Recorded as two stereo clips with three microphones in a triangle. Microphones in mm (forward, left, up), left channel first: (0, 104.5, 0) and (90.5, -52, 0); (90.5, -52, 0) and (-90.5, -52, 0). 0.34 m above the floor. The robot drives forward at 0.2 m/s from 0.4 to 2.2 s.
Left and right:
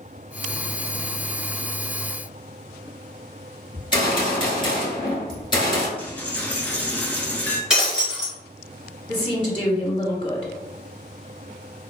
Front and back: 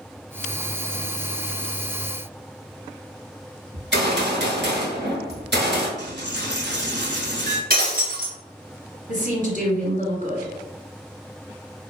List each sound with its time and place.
3.7 s a gunshot: 175° right, 1.6 m
6.0 s a dropped coin: 160° right, 1.0 m
7.7 s breaking glass: 145° right, 1.9 m
9.1 s a woman speaking: 170° left, 1.8 m